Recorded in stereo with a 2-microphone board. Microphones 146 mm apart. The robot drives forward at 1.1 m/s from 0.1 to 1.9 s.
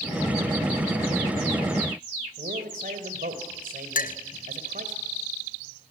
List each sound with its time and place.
2.4 s a man speaking: 75° right (ahead or behind), 3 m
4.0 s a clink: 70° left (ahead or behind), 0.6 m